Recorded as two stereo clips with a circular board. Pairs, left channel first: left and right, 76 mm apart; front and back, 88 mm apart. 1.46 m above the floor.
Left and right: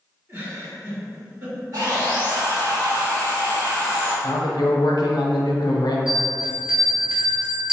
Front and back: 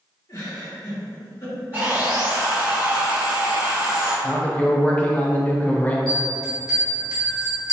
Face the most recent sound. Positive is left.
turn(degrees=-165)